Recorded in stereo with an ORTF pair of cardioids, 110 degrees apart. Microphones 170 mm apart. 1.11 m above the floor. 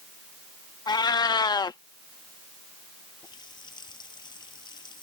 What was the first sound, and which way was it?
A cat meowing, 25° left.